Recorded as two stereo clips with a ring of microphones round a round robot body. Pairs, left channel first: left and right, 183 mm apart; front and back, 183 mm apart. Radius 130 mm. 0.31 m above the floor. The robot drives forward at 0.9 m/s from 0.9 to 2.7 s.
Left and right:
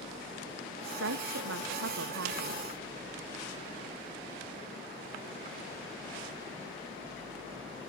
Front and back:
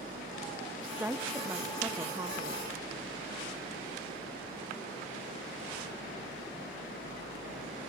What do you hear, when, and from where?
0.8 s a woman speaking: 95° right; by 2.7 s 100° right